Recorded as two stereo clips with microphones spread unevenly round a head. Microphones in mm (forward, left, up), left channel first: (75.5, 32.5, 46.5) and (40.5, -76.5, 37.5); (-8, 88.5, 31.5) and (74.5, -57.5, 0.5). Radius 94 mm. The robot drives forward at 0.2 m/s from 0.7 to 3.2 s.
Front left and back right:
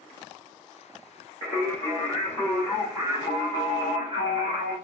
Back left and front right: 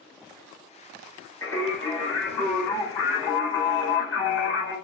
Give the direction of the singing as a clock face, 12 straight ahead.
5 o'clock.